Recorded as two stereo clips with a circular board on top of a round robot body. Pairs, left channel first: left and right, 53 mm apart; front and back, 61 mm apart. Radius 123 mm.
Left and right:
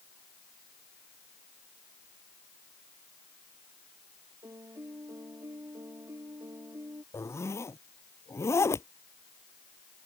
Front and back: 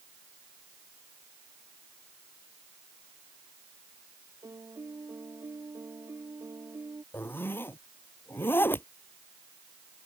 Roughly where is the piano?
Behind right.